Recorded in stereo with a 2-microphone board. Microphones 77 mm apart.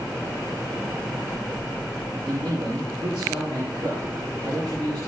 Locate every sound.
2.3 s a man speaking: 70° right (ahead or behind), 6 m